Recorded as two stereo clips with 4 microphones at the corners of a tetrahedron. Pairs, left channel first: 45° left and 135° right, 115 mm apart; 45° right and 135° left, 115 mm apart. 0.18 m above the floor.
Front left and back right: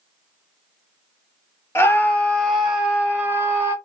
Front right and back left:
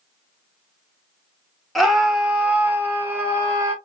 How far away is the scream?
About 1.1 m.